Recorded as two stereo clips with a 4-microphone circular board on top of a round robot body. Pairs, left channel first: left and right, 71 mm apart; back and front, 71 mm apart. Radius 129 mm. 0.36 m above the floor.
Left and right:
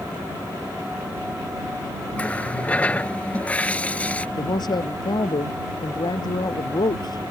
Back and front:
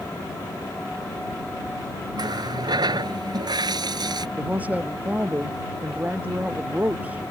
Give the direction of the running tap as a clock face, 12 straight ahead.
11 o'clock.